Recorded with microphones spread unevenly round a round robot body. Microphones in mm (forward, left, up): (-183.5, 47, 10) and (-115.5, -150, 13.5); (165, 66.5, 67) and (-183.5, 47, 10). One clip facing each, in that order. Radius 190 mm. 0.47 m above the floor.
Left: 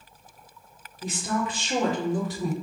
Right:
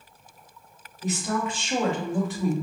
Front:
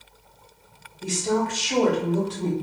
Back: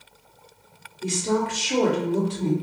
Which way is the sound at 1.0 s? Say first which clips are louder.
Right 1 dB, even; 115° left.